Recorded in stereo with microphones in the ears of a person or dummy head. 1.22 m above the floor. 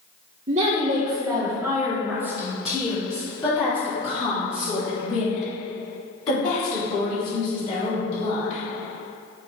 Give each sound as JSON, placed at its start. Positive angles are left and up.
{"t": 0.5, "sound": "a woman speaking", "side_deg": -40, "distance_m": 1.0}